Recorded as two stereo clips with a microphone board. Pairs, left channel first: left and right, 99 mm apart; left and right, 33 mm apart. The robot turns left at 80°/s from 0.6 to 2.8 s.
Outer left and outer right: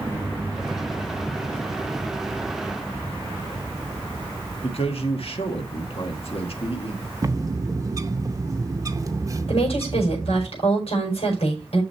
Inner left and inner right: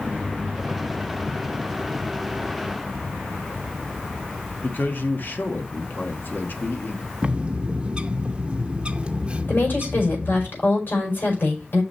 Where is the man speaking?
75° left (ahead or behind), 1.6 m.